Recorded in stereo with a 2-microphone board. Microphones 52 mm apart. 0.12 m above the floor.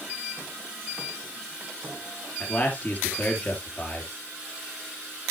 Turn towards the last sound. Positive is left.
turn(degrees=35)  # may be behind; listen again after turning